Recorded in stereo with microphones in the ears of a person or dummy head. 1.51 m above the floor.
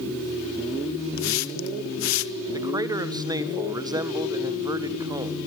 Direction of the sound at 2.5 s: 15° right (ahead or behind).